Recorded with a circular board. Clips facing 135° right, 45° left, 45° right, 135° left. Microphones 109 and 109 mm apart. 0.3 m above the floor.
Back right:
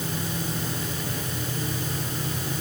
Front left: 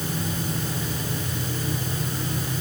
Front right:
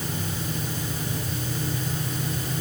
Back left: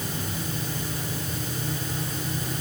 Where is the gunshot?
No gunshot in this recording.